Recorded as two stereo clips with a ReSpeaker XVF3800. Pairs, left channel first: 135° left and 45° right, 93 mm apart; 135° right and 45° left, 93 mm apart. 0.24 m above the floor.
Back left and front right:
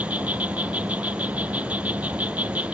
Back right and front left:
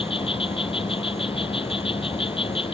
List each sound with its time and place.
0.0 s an insect: 120° right